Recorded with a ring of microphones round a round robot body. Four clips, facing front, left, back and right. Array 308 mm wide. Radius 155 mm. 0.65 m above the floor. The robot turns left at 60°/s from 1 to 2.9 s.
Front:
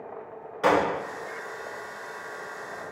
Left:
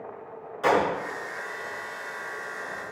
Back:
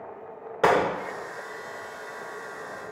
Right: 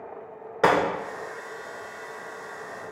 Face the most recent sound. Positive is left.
turn(degrees=120)